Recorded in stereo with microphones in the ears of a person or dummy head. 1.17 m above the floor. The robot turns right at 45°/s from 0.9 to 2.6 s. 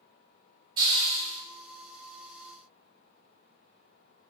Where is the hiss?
25° right (ahead or behind), 1.4 m; by 1.4 s 5° right (ahead or behind), 1.4 m.